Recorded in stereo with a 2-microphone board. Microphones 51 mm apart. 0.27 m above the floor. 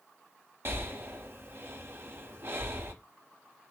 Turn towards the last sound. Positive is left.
turn(degrees=-50)  # may be behind; listen again after turning